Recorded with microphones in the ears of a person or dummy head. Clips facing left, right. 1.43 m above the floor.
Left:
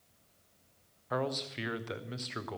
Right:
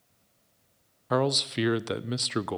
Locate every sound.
1.1 s a man speaking: 55° right (ahead or behind), 0.5 m